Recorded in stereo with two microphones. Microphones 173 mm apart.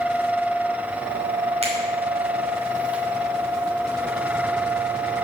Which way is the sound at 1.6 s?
35° right (ahead or behind).